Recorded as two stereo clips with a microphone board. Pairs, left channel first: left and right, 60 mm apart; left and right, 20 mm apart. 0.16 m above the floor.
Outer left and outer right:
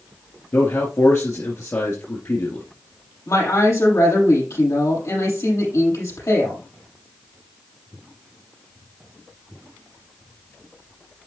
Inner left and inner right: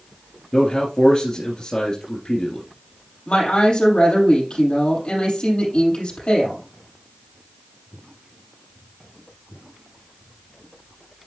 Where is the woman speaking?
65° left (ahead or behind), 5.5 m.